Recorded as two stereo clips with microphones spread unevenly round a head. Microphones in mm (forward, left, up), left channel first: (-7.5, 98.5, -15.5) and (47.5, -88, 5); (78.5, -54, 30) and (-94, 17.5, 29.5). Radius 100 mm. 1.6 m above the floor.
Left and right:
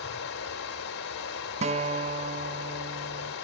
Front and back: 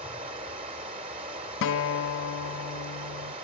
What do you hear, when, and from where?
0.0 s running water: 95° left, 3 m
1.6 s a guitar: 10° right, 0.5 m